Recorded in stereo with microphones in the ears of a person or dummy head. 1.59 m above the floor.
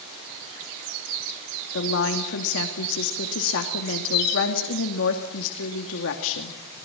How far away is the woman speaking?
About 2.5 m.